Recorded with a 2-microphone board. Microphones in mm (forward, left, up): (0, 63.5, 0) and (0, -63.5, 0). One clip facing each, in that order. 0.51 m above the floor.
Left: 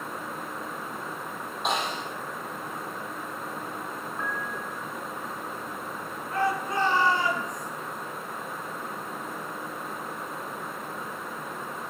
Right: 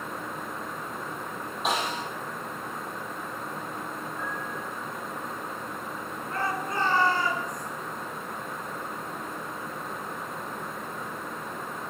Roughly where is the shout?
Centre.